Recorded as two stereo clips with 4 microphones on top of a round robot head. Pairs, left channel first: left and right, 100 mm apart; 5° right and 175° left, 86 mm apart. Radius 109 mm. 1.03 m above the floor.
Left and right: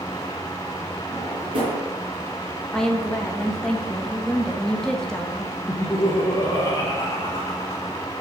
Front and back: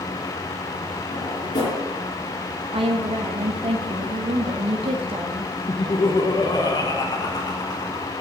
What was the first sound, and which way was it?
A drawer, 45° right.